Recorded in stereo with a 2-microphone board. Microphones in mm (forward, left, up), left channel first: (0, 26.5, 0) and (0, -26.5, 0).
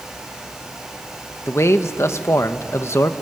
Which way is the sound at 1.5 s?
60° left (ahead or behind).